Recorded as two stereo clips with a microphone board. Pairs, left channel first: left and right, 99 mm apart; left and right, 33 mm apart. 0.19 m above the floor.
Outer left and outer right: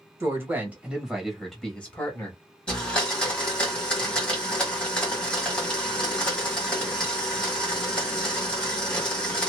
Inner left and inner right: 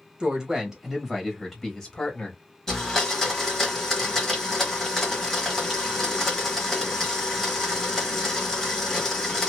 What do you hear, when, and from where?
0.2 s a woman speaking: 25° right (ahead or behind), 1.4 m; by 2.4 s 20° left (ahead or behind), 1.3 m
2.7 s a blender: 10° left (ahead or behind), 1.6 m